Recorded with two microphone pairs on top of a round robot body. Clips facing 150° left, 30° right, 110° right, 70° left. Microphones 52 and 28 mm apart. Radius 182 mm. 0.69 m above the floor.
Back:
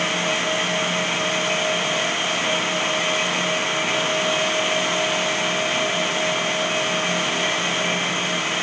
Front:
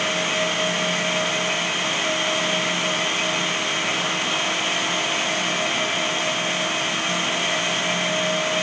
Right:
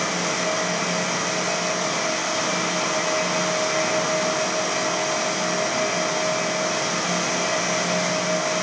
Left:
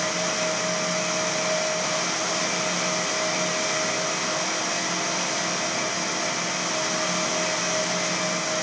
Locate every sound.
Only background noise.